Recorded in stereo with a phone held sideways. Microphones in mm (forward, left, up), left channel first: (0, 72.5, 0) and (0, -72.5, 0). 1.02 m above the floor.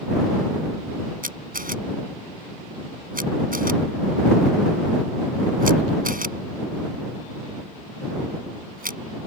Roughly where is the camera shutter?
Right.